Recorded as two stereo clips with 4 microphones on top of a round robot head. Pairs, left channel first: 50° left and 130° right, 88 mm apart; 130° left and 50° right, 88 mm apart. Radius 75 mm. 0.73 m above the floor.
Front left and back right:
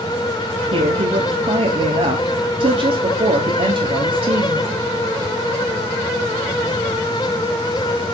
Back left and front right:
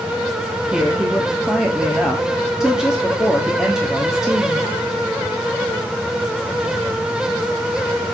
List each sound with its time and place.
0.7 s a woman speaking: 130° right, 1.3 m